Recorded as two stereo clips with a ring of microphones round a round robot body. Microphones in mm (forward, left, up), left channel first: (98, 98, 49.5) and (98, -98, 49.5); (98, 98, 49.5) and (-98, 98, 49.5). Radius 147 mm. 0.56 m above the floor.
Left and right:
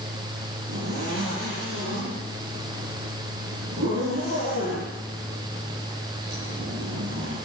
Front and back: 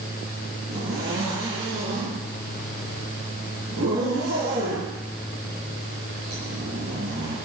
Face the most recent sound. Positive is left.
turn(degrees=-125)